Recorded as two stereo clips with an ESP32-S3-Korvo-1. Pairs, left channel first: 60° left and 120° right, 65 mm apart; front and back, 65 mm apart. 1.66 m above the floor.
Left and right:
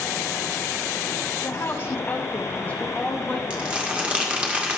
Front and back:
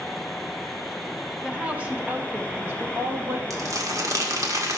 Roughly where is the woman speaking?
Left.